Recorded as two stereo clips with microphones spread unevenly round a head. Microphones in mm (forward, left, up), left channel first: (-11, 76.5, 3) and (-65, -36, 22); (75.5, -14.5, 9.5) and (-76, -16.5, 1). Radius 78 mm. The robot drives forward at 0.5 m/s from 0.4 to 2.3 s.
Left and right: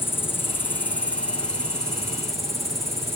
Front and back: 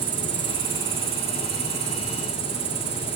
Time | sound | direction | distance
0.0 | an insect | 140° left | 1.6 m